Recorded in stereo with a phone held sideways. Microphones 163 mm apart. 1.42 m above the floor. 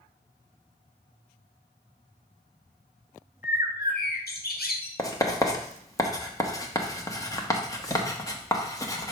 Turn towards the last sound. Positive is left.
turn(degrees=20)  # may be behind; listen again after turning